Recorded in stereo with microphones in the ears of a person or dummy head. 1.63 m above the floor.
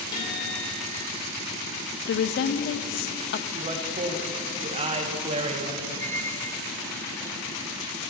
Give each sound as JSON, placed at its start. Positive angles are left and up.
{"t": 0.1, "sound": "a guitar", "side_deg": 20, "distance_m": 4.0}
{"t": 2.1, "sound": "a woman speaking", "side_deg": 45, "distance_m": 0.5}
{"t": 3.5, "sound": "a man speaking", "side_deg": -30, "distance_m": 1.5}
{"t": 6.0, "sound": "a squeak", "side_deg": 15, "distance_m": 1.0}